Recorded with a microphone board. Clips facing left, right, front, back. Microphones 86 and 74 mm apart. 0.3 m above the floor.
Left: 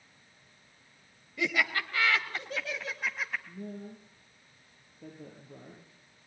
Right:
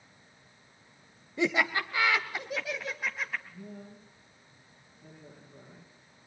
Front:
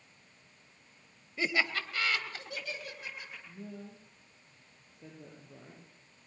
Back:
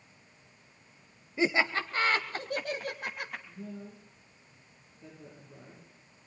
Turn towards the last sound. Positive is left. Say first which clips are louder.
# left 4 dB, back 2 dB
turn(degrees=75)